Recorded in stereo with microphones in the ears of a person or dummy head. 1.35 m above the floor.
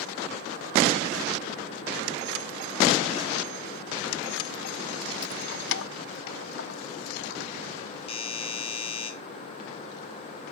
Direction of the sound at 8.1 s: 30° left (ahead or behind).